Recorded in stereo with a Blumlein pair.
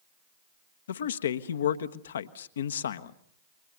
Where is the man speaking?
65° left, 1.1 m.